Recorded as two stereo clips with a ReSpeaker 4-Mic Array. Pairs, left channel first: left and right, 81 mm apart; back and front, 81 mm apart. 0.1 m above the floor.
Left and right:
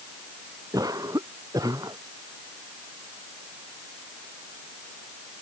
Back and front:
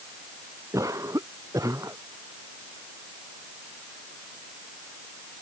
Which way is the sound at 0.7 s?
50° right.